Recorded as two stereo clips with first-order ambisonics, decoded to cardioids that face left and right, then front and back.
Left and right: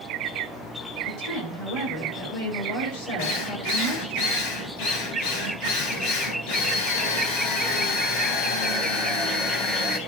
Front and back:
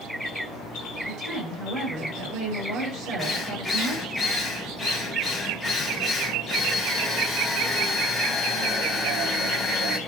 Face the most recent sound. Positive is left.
turn(degrees=85)